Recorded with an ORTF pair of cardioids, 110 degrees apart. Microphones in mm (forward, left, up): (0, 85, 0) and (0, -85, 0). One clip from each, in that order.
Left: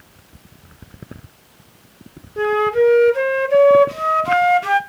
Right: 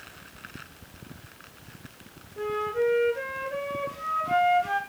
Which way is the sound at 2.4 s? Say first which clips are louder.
Left 11 dB; 65° left.